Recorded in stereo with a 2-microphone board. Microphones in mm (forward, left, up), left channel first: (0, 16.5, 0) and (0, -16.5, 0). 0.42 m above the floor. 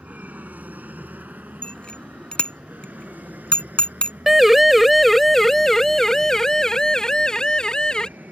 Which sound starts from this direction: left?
A bicycle bell, at 1.6 s.